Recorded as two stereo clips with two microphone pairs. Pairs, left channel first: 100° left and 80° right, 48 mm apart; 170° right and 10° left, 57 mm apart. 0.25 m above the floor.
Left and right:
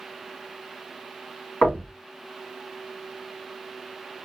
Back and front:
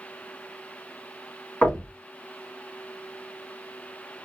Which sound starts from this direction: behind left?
Knocking, at 1.6 s.